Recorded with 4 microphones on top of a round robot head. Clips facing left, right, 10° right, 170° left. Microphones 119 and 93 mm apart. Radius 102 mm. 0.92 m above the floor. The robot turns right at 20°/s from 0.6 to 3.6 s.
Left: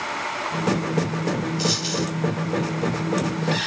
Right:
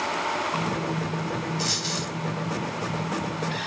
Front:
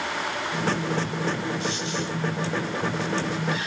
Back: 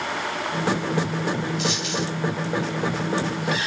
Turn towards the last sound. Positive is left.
turn(degrees=-155)